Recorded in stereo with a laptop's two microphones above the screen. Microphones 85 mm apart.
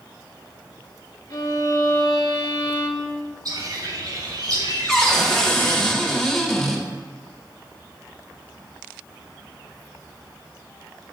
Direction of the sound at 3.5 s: 55° right (ahead or behind).